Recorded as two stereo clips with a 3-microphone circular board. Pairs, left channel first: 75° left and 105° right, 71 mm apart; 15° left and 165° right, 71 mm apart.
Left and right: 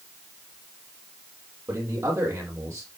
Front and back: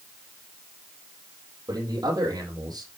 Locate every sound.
1.7 s a man speaking: 145° right, 7.5 m